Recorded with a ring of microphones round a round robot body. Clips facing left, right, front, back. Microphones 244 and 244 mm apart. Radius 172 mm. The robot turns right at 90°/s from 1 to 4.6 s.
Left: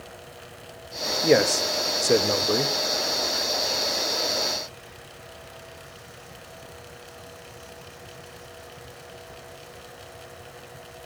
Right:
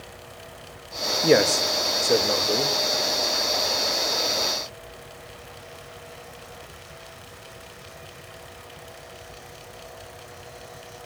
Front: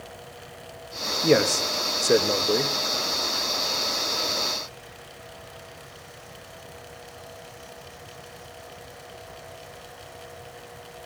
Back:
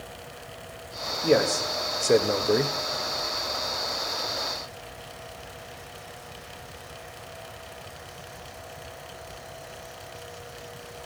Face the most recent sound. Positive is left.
turn(degrees=-70)